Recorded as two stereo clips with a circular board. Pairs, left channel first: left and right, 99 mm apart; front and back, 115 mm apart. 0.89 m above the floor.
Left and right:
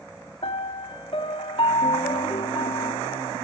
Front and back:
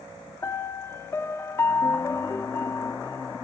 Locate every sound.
0.4 s a piano: 70° left, 0.6 m